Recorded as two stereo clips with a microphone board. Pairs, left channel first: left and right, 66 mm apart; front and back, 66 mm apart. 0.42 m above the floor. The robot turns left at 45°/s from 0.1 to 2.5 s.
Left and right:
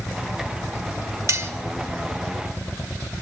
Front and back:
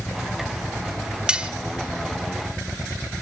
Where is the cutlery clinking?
105° right, 0.9 m; by 1.5 s 115° right, 0.9 m.